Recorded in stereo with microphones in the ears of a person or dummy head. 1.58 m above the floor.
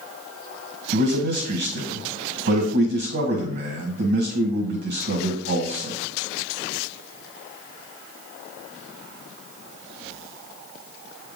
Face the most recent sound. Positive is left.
turn(degrees=-55)  # may be behind; listen again after turning